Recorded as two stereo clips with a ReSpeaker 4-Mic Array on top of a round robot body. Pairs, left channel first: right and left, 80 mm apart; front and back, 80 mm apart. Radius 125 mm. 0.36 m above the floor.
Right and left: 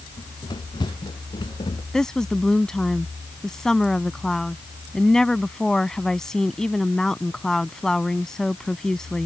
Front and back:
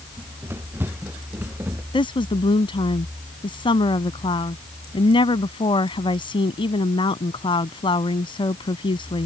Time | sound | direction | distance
0.2 | running footsteps | 115° right | ?
1.9 | a woman speaking | 5° right | ?